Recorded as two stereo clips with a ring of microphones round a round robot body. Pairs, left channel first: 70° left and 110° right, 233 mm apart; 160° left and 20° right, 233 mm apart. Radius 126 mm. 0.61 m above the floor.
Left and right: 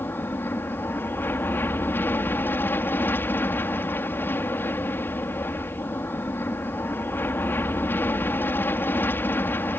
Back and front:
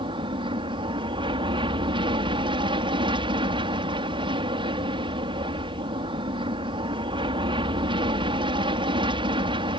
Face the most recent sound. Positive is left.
turn(degrees=0)